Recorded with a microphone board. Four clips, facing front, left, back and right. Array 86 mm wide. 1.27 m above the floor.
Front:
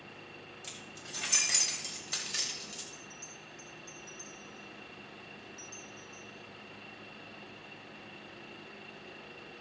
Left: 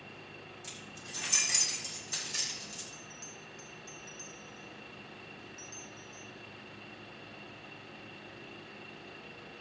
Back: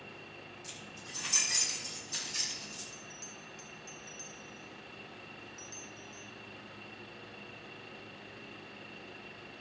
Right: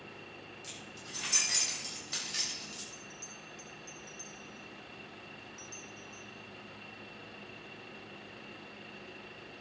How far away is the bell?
About 2 m.